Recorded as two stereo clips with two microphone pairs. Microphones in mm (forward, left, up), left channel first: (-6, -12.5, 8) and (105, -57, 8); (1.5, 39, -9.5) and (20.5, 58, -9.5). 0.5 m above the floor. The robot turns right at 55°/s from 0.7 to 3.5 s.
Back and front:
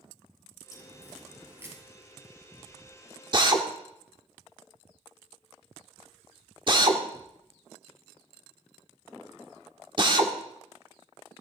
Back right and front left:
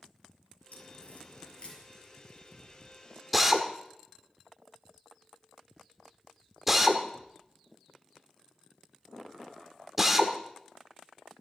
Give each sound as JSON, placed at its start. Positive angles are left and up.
{"t": 0.7, "sound": "a crack", "azimuth_deg": -145, "distance_m": 7.0}
{"t": 3.3, "sound": "a drill", "azimuth_deg": -40, "distance_m": 1.4}